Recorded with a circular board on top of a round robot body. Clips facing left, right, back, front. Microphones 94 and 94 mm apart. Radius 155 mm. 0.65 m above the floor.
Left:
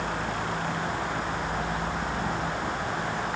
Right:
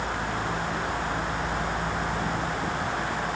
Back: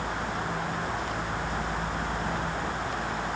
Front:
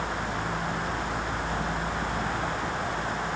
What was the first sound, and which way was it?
Only background noise.